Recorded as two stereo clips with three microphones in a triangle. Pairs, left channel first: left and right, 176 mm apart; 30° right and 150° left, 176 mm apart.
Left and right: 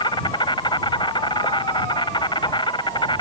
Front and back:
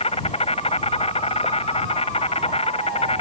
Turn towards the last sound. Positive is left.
turn(degrees=25)